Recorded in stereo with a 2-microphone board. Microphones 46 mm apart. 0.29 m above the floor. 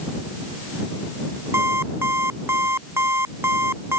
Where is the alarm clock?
70° right (ahead or behind).